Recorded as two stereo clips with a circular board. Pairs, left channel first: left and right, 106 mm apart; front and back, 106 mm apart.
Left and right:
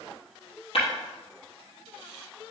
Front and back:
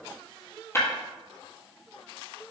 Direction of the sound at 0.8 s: 65° left.